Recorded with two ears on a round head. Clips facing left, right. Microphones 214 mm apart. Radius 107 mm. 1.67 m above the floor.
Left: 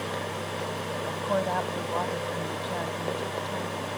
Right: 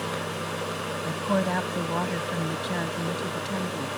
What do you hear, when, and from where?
1.0 s a woman speaking: 35° right (ahead or behind); by 3.9 s 40° right (ahead or behind)